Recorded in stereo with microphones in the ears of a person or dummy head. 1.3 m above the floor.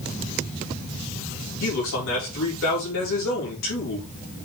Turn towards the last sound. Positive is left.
turn(degrees=70)  # may be behind; listen again after turning